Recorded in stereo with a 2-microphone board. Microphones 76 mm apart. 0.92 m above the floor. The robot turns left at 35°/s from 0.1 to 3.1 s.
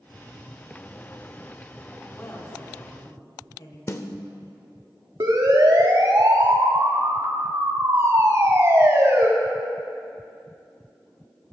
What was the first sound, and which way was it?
A woman speaking, 150° left.